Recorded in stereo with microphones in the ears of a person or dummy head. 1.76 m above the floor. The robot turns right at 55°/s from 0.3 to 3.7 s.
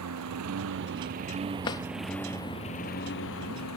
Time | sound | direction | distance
0.0 | a lawn mower | 95° right | ?
1.6 | a drawer | 20° left (ahead or behind) | ?